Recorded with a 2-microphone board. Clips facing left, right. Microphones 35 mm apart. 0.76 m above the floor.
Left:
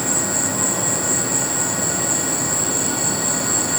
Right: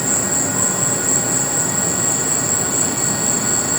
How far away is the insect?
About 2.5 m.